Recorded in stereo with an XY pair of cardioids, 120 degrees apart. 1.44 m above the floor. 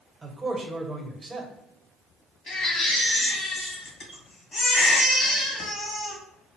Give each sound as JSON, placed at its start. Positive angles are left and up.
{"t": 0.2, "sound": "a man speaking", "azimuth_deg": -20, "distance_m": 1.2}
{"t": 2.5, "sound": "a baby crying", "azimuth_deg": 40, "distance_m": 1.7}